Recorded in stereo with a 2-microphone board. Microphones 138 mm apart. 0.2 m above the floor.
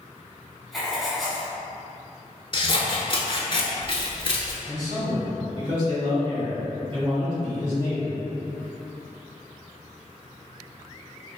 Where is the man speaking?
40° right (ahead or behind), 1.8 m.